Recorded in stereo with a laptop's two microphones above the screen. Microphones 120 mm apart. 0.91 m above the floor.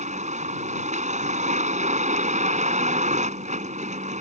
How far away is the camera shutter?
I don't hear a camera shutter.